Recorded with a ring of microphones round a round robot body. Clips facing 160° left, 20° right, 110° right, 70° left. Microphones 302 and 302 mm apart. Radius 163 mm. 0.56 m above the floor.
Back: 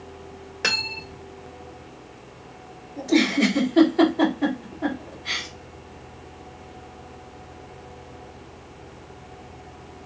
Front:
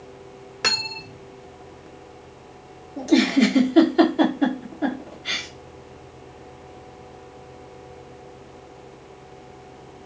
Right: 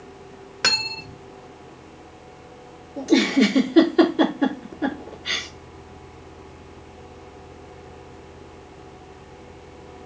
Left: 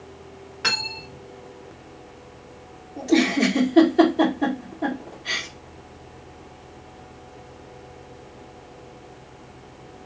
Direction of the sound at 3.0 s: 45° right.